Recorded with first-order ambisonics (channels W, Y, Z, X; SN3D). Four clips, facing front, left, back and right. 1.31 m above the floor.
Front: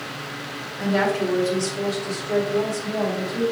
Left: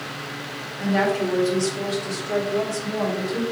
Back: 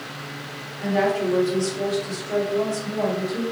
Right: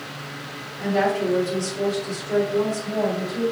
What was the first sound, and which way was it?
A woman speaking, 30° left.